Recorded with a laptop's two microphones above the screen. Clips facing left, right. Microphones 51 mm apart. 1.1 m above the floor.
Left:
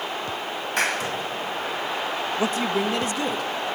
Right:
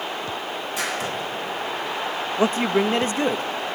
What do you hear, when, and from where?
0.8 s a clap: 55° left (ahead or behind), 7 m
2.4 s a man speaking: 30° right (ahead or behind), 1.1 m